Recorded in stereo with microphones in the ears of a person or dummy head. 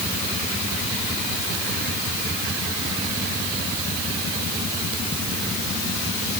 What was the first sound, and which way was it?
Only background noise.